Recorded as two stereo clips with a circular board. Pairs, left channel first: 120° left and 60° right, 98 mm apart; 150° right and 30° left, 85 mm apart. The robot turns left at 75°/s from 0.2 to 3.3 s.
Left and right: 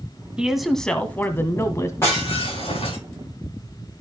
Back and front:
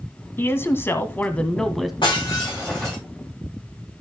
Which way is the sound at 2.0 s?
175° right.